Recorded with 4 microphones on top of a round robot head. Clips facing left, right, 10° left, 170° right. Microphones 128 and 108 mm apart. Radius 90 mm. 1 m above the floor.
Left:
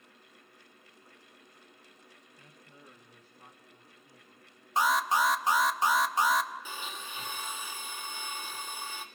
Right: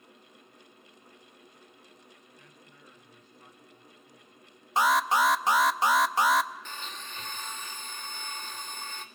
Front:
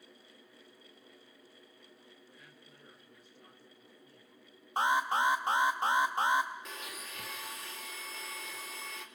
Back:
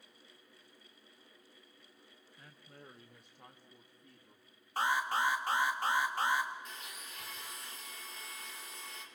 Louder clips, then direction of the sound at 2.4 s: Even, back 1 dB; 140° left.